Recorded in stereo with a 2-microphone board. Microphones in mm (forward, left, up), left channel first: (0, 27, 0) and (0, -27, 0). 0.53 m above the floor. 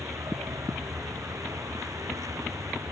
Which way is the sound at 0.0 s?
85° right.